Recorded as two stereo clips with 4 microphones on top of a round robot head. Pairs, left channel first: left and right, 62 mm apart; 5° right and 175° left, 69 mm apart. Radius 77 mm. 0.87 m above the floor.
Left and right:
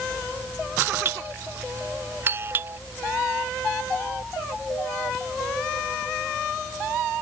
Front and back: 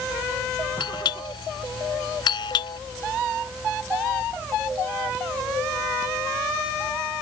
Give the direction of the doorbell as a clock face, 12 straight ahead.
1 o'clock.